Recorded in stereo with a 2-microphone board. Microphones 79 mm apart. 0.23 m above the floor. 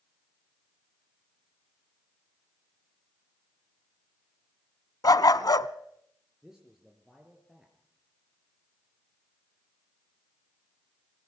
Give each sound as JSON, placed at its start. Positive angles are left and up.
{"t": 5.0, "sound": "a dog barking", "side_deg": 55, "distance_m": 0.9}
{"t": 6.4, "sound": "a man speaking", "side_deg": -5, "distance_m": 3.5}